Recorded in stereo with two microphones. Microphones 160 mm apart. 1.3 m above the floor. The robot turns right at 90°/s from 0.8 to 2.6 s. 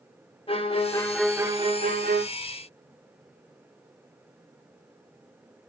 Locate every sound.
0.5 s a violin: 140° left, 1.7 m; by 2.2 s 85° right, 1.7 m